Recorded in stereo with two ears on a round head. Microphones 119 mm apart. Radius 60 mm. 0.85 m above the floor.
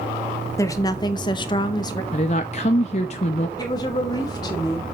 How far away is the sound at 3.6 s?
About 3.5 m.